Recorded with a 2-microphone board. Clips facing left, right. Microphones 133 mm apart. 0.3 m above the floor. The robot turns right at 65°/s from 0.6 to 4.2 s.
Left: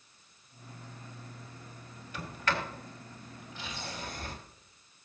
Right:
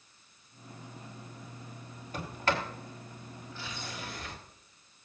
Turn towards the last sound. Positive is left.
turn(degrees=45)  # may be behind; listen again after turning